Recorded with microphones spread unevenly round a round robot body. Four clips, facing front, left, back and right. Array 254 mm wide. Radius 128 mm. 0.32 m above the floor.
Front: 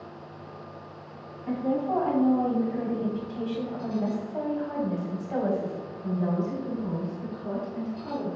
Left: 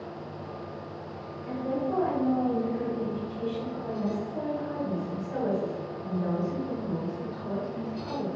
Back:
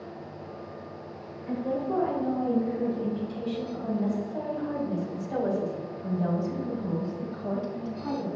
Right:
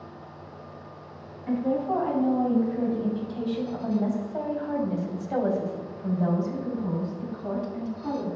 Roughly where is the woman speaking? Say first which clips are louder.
Right 4 dB, front 2 dB; ahead right.